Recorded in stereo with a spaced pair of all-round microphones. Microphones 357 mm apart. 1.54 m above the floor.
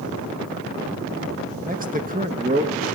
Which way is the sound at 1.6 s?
25° right (ahead or behind).